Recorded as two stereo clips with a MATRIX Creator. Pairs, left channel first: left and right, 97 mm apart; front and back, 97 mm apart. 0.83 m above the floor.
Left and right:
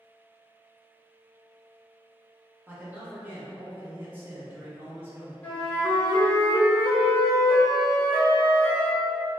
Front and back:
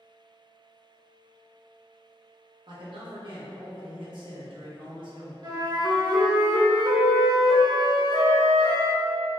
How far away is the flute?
About 0.7 m.